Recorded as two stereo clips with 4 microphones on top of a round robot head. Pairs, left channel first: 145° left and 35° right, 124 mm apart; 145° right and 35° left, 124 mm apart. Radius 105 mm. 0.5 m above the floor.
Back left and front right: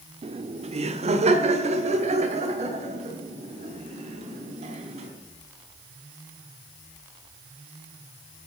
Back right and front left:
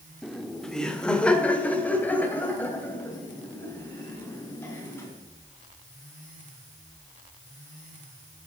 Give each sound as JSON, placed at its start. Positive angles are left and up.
{"t": 0.2, "sound": "laughter", "azimuth_deg": -55, "distance_m": 1.3}